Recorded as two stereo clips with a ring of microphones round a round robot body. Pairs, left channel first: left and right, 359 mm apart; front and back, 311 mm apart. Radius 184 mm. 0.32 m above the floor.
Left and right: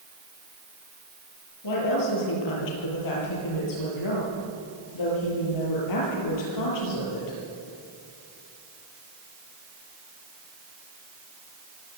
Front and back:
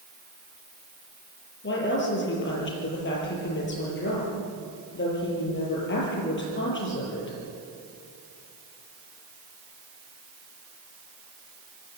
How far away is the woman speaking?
About 8.5 m.